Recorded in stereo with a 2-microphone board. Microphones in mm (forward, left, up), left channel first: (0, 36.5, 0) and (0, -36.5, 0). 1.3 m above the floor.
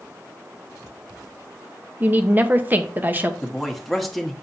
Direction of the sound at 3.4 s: Centre (ahead or behind).